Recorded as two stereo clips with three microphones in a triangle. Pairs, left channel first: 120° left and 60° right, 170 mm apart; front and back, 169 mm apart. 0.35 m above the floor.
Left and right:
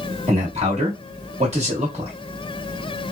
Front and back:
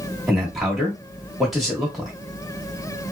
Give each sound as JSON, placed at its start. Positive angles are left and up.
{"t": 0.3, "sound": "a man speaking", "azimuth_deg": -90, "distance_m": 1.2}